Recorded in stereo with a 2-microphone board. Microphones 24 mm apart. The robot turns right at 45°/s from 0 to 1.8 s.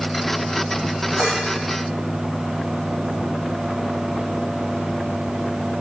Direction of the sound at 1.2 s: 35° right (ahead or behind).